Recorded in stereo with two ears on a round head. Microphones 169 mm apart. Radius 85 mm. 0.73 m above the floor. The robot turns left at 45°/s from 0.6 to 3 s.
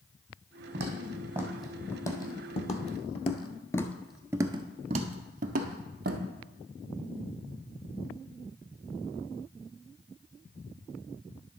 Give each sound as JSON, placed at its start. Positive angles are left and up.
{"t": 0.7, "sound": "footsteps", "side_deg": -40, "distance_m": 2.5}